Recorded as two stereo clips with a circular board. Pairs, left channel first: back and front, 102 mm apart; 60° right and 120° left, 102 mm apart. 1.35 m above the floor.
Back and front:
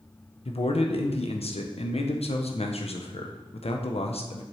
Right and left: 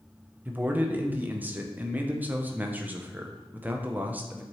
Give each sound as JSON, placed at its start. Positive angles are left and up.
{"t": 0.5, "sound": "a man speaking", "azimuth_deg": -165, "distance_m": 0.6}